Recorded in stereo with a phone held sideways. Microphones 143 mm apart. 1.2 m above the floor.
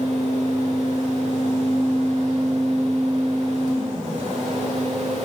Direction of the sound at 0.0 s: 50° right (ahead or behind).